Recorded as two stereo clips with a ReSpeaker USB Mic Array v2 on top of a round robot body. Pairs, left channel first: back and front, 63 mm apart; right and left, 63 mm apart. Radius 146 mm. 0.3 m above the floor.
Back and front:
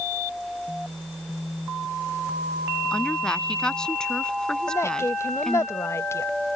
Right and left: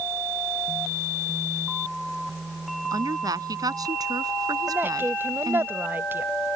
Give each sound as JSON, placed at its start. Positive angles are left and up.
{"t": 2.9, "sound": "a woman speaking", "azimuth_deg": 100}
{"t": 4.7, "sound": "a woman speaking", "azimuth_deg": 140}